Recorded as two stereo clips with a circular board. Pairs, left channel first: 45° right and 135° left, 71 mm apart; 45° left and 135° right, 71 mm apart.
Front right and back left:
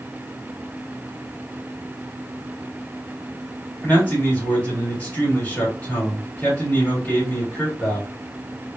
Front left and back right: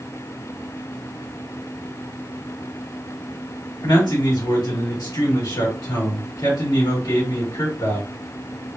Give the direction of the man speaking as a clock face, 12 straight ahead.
11 o'clock.